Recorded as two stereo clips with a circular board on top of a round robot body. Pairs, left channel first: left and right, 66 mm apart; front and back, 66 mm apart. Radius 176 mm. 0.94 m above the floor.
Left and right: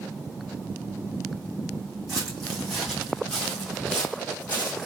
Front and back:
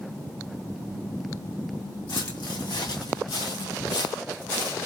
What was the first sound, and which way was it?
Footsteps, straight ahead.